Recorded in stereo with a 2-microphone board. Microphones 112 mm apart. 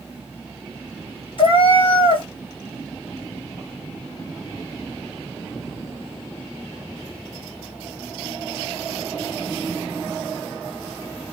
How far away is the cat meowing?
About 1.6 m.